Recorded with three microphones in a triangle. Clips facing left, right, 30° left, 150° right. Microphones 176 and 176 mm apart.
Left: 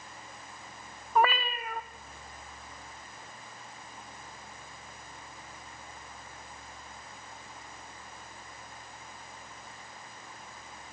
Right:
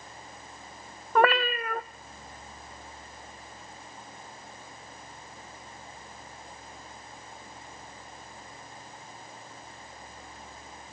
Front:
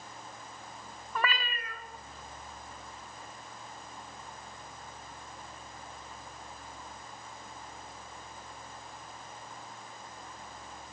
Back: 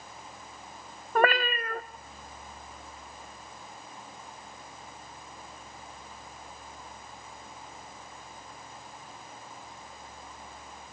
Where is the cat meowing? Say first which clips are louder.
Right 4 dB, back 10 dB; 115° right, 0.8 m.